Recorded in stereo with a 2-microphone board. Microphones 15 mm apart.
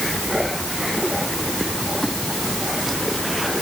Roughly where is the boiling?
I don't hear boiling.